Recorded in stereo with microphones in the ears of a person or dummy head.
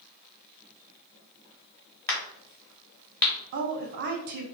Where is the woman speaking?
55° right (ahead or behind), 0.9 m.